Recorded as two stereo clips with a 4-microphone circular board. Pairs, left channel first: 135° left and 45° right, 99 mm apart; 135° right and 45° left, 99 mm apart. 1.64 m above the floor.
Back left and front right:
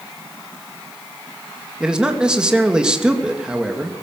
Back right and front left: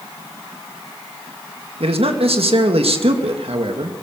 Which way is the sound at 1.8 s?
35° left.